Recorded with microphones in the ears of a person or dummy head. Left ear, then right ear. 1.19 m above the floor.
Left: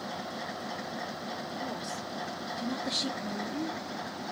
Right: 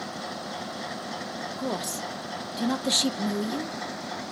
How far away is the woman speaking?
About 0.5 m.